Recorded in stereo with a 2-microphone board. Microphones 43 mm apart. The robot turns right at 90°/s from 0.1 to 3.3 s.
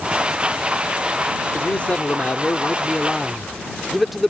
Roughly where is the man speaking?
Ahead left.